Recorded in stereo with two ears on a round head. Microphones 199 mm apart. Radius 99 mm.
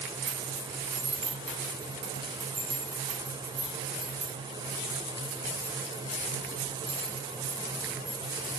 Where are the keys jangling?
50° right (ahead or behind), 1.5 m; by 8.5 s 40° right (ahead or behind), 4.5 m.